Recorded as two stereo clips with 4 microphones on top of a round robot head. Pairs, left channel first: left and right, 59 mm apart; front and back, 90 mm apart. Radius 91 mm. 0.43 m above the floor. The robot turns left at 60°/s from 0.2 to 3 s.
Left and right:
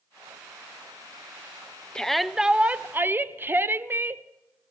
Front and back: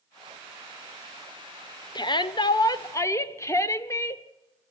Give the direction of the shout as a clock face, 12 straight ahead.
12 o'clock.